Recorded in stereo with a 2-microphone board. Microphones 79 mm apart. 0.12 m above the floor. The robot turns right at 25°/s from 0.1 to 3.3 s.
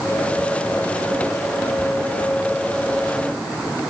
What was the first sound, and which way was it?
Only background noise.